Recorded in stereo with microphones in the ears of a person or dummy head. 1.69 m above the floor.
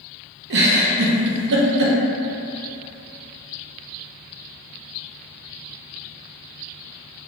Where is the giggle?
60° right (ahead or behind), 0.6 m.